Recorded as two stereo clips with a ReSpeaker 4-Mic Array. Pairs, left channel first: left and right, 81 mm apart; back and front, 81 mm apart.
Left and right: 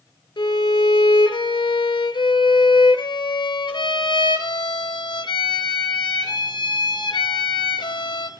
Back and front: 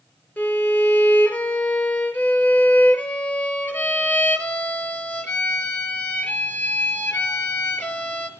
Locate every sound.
0.4 s a violin: 110° left, 0.6 m